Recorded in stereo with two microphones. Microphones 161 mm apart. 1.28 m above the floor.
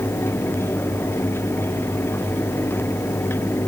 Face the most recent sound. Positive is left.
No sound to turn to.